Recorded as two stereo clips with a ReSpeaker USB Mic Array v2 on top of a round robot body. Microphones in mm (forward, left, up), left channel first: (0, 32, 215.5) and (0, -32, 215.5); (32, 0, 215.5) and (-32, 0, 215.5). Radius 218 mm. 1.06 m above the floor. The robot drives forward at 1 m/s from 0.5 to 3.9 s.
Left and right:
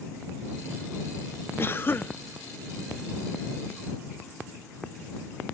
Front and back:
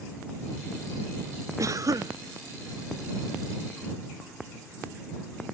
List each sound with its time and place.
1.6 s a cough: 145° left; by 2.2 s 150° left